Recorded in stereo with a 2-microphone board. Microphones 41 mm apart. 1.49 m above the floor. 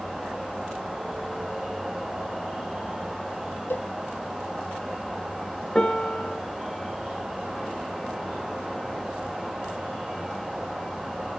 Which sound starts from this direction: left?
A cowbell, at 3.7 s.